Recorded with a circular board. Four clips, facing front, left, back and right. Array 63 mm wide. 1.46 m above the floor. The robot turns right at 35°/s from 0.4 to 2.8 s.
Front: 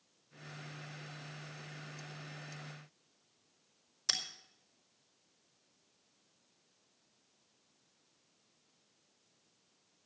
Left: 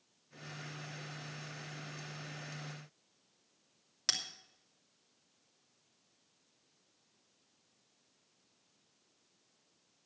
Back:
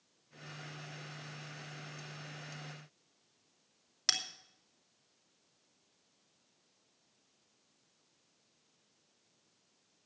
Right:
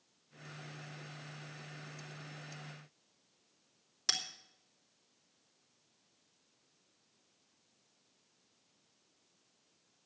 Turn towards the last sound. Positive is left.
turn(degrees=150)